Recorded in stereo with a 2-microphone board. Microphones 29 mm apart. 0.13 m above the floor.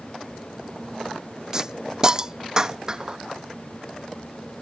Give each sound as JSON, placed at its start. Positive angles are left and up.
{"t": 1.5, "sound": "a hiss", "side_deg": -20}